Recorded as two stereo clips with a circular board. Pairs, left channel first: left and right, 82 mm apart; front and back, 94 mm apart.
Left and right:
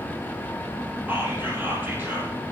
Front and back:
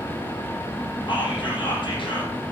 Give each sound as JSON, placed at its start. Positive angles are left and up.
{"t": 1.1, "sound": "whispering", "azimuth_deg": -25, "distance_m": 4.5}